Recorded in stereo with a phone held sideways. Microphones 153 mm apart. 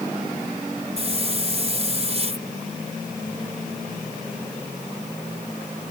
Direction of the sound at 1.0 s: 45° right (ahead or behind).